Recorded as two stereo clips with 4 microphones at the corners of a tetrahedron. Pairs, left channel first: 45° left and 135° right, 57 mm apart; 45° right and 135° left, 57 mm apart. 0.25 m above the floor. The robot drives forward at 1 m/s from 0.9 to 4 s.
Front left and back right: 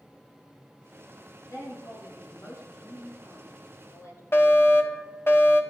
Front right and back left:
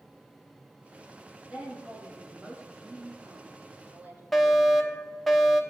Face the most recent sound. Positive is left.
turn(degrees=40)